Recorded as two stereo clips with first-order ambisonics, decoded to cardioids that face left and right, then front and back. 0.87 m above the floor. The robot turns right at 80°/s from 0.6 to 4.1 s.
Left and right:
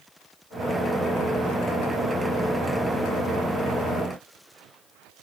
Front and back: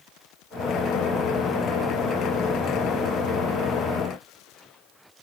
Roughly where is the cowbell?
No cowbell in this recording.